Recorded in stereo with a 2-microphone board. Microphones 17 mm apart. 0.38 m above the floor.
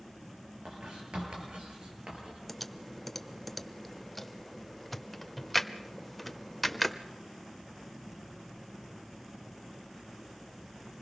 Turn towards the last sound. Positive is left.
turn(degrees=10)  # may be behind; listen again after turning